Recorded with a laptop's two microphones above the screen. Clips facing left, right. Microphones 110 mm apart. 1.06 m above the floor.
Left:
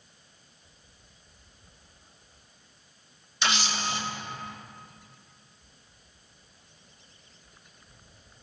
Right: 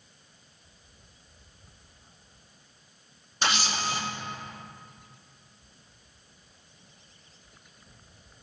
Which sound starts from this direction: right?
A camera shutter, at 3.4 s.